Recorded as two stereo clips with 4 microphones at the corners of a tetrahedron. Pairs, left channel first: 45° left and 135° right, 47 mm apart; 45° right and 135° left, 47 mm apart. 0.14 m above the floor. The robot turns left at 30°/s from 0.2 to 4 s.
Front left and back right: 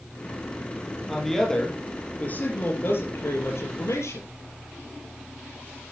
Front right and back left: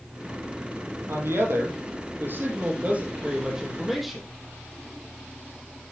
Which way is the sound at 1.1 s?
135° left.